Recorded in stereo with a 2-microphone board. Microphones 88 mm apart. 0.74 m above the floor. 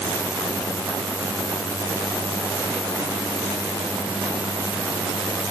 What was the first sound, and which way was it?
Only background noise.